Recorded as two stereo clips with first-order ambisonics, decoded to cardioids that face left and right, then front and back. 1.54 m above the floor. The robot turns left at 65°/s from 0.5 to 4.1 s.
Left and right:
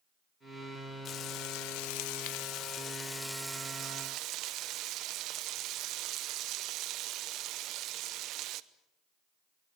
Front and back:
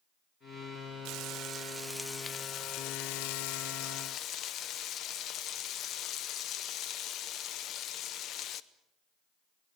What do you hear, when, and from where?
1.1 s frying: 150° left, 0.8 m; by 8.6 s 50° right, 0.8 m